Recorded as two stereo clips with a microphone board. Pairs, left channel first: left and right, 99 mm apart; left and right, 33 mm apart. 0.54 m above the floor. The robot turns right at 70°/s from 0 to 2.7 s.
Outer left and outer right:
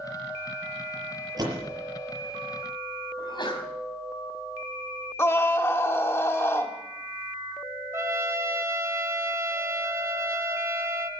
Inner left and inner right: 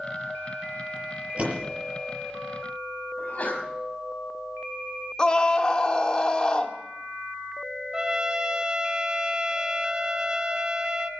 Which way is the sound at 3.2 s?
50° left (ahead or behind).